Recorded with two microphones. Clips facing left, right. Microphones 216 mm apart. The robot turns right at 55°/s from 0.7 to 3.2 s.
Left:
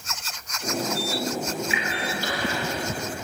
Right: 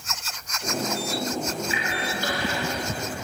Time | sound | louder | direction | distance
1.7 | a splash | even | 35° right (ahead or behind) | 1.6 m